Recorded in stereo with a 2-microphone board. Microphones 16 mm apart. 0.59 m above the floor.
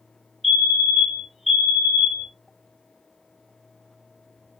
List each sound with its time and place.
0.4 s a fire alarm: 15° right (ahead or behind), 1.5 m